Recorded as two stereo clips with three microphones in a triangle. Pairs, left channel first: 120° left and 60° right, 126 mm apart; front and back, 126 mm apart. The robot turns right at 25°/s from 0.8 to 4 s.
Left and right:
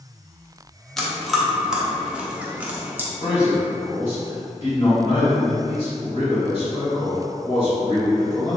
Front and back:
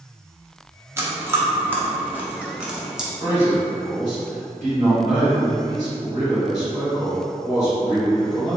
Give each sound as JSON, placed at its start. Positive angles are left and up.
{"t": 1.0, "sound": "chewing", "azimuth_deg": -155, "distance_m": 0.6}
{"t": 3.2, "sound": "a man speaking", "azimuth_deg": 145, "distance_m": 1.8}